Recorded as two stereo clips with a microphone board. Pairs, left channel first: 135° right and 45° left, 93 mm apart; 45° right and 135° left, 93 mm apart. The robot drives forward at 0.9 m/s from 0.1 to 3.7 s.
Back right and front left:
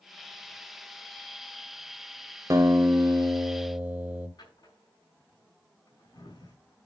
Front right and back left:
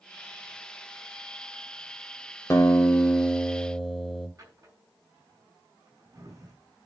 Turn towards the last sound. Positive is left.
turn(degrees=-175)